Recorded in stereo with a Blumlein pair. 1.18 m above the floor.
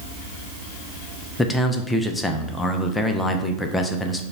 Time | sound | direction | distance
1.4 | a man speaking | 5° left | 0.5 m